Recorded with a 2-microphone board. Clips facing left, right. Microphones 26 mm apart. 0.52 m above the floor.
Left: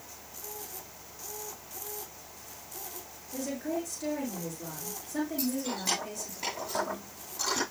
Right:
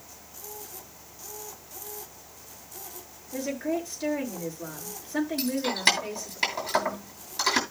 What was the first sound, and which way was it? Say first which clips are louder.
A woman speaking: right 4 dB; 40° right (ahead or behind).